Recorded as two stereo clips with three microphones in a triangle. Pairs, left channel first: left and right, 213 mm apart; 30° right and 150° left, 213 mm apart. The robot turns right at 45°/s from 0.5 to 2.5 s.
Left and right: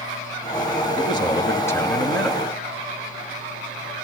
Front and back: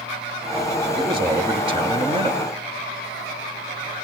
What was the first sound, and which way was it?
A man speaking, 115° left.